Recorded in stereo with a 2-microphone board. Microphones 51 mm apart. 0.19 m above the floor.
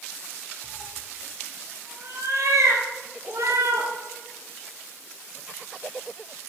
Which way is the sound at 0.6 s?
55° right (ahead or behind).